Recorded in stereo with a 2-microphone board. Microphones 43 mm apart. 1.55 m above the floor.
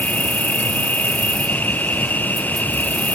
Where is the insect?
45° left (ahead or behind).